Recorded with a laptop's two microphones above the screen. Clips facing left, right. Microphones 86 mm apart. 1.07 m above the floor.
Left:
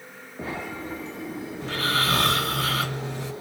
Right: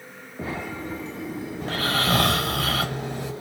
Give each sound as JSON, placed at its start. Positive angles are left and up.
{"t": 1.6, "sound": "snoring", "side_deg": -55, "distance_m": 1.4}